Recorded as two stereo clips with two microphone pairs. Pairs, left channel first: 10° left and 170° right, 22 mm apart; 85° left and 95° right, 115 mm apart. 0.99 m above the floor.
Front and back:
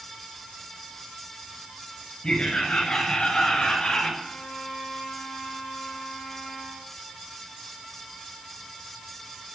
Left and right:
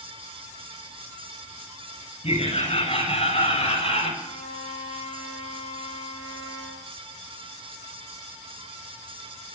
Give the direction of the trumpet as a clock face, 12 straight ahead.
11 o'clock.